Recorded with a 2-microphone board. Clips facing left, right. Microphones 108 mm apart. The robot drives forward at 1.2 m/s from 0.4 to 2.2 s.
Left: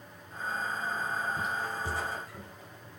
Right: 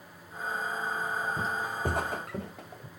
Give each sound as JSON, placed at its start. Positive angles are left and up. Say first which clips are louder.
{"t": 1.4, "sound": "footsteps", "louder": "right 2 dB", "side_deg": -25, "distance_m": 0.6}